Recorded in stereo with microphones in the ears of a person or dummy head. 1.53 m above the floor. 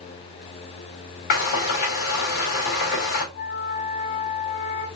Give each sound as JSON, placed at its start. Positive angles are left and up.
{"t": 1.3, "sound": "frying", "side_deg": 55, "distance_m": 2.5}
{"t": 3.3, "sound": "a flute", "side_deg": 60, "distance_m": 2.5}